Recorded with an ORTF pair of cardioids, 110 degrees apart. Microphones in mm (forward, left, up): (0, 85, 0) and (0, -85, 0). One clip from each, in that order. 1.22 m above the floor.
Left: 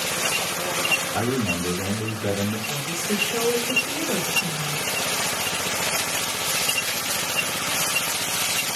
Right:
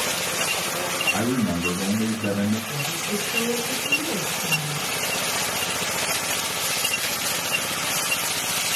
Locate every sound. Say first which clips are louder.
1.1 s a man speaking: even; 20° right, 1.5 m
2.7 s a woman speaking: even; 45° left, 1.1 m